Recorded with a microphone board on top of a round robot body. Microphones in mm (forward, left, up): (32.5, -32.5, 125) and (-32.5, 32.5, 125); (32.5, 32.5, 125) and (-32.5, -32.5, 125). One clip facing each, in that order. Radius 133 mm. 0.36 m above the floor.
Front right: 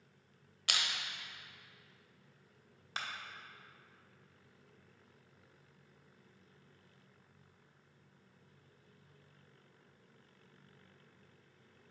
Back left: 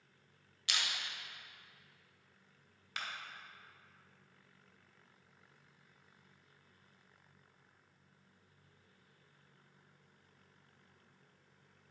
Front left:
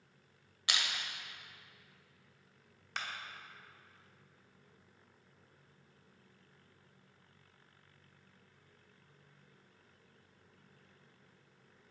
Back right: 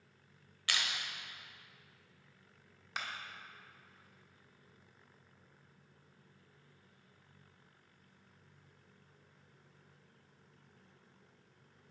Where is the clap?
60° right, 1.2 m.